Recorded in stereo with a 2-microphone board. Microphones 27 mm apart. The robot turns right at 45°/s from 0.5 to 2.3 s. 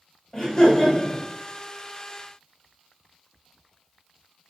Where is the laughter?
25° left, 1.4 m; by 1.2 s 55° left, 1.4 m.